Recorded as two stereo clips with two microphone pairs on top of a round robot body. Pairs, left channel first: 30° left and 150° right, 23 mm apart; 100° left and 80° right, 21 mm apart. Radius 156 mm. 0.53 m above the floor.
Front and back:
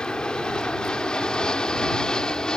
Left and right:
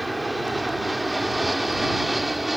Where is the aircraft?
5° right; by 2.6 s 10° right.